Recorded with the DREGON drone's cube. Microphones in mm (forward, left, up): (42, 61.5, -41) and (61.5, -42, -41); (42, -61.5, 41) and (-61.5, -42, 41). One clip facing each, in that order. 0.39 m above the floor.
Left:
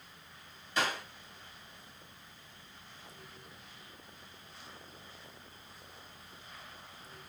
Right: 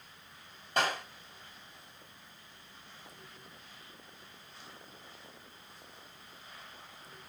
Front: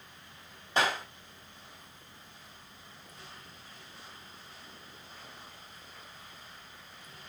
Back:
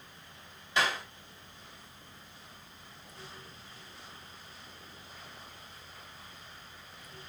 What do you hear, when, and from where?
0.8 s a clap: 55° right, 2 m